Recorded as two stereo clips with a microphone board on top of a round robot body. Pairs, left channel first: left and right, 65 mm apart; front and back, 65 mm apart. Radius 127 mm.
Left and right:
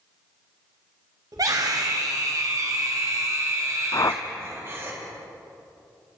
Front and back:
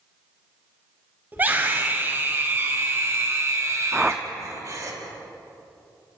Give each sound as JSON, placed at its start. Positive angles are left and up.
{"t": 1.3, "sound": "a scream", "azimuth_deg": -115, "distance_m": 4.0}
{"t": 3.9, "sound": "a whoosh", "azimuth_deg": 105, "distance_m": 0.9}